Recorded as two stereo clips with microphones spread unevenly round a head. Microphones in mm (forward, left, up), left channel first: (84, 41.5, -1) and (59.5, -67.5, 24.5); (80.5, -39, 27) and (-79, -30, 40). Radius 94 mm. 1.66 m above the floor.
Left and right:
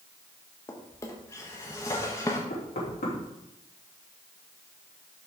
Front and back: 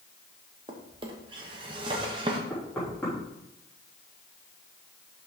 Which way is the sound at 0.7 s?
155° left.